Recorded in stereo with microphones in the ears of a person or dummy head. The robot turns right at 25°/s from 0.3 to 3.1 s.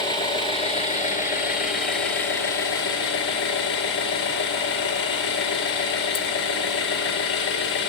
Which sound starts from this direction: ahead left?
An engine running, at 0.0 s.